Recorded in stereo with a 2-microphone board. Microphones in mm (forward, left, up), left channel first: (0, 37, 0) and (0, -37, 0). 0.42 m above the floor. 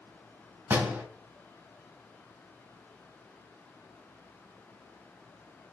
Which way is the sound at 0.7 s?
25° right (ahead or behind).